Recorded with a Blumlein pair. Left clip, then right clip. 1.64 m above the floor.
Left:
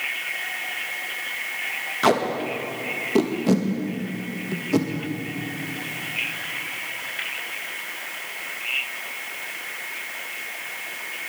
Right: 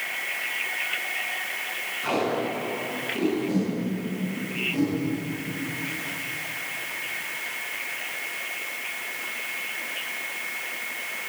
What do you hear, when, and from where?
2.0 s tape being pulled: 40° left, 2 m